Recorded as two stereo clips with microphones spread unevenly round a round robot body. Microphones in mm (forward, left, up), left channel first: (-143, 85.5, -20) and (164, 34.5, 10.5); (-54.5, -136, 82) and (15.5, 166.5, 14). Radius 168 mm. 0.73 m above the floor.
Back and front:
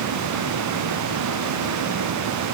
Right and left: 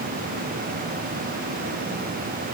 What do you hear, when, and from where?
Only background noise.